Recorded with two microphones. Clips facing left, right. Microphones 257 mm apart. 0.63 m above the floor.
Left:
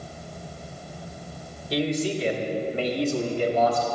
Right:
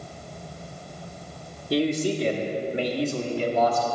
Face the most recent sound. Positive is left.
turn(degrees=30)  # may be behind; listen again after turning